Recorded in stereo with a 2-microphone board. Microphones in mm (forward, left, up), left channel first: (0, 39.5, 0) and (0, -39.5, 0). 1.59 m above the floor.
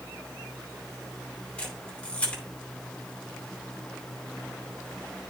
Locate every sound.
1.6 s a camera shutter: 15° left (ahead or behind), 4 m